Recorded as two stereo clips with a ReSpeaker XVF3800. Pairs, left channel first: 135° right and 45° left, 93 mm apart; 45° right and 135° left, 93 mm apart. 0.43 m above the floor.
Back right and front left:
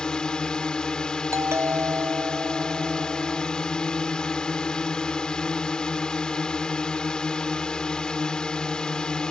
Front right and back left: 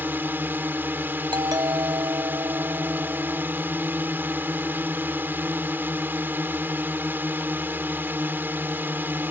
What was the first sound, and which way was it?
A drone, 155° left.